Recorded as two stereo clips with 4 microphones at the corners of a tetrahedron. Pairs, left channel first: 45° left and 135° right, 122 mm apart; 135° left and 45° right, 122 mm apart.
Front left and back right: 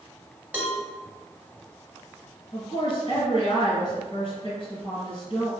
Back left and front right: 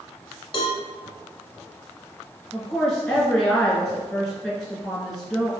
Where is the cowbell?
150° left, 0.7 m.